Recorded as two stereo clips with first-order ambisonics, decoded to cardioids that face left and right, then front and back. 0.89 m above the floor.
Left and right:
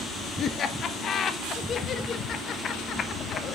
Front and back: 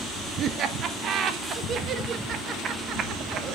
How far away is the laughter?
About 1.2 m.